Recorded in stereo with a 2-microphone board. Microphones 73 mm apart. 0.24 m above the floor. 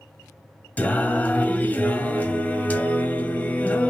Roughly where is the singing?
Left.